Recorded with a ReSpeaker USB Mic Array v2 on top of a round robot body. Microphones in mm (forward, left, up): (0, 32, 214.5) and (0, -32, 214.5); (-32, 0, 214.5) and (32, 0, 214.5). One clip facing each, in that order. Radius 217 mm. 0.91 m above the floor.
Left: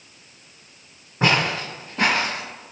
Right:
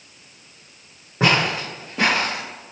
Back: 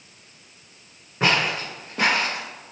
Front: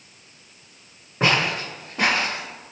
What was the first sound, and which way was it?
Footsteps, 75° right.